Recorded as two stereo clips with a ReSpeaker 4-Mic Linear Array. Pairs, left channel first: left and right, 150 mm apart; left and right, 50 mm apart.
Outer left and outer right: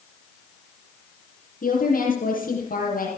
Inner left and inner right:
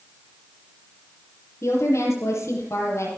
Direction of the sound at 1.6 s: 65° left (ahead or behind).